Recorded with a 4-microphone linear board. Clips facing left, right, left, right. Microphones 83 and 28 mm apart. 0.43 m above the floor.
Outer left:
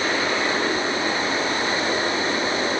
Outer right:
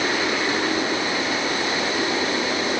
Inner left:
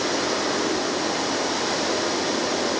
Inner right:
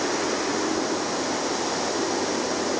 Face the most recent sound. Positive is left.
No sound to turn to.